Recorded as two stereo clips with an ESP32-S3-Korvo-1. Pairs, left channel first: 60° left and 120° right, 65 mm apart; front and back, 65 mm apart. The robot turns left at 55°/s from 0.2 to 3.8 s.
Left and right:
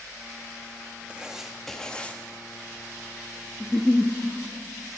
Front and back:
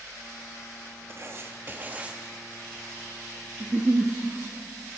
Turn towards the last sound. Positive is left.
turn(degrees=130)